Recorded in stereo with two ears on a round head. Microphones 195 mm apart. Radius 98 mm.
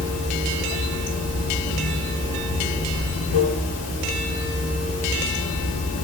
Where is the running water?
75° left (ahead or behind), 0.8 m.